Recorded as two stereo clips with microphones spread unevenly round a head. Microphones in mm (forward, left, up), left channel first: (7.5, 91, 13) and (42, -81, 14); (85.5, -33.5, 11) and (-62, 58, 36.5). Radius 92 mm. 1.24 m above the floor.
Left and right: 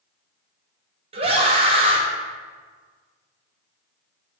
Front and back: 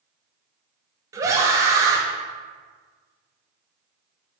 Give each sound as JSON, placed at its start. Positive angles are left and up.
{"t": 1.1, "sound": "a scream", "azimuth_deg": -140, "distance_m": 0.7}